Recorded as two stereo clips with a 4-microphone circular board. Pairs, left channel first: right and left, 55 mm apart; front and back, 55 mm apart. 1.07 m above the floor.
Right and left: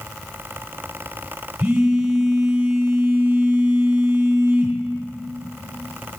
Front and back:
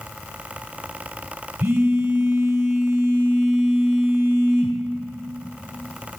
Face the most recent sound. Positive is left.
turn(degrees=155)